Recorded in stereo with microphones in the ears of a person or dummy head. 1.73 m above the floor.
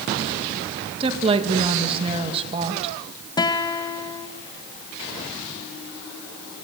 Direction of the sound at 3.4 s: 15° left (ahead or behind).